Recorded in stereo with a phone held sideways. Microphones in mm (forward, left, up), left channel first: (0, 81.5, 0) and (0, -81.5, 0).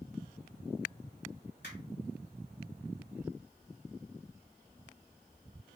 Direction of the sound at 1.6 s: 80° left.